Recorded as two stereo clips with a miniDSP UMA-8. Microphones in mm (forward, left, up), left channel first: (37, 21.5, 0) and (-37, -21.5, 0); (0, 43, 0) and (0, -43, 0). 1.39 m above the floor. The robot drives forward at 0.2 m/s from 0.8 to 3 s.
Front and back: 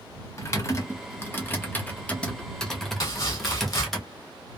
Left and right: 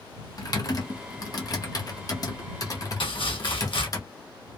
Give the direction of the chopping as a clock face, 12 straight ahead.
9 o'clock.